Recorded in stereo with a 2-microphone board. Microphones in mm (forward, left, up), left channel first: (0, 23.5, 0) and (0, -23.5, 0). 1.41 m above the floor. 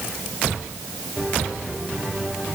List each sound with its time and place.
Only background noise.